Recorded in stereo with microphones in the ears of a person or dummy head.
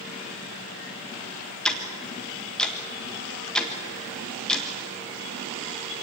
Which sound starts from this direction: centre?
Ticking, at 1.6 s.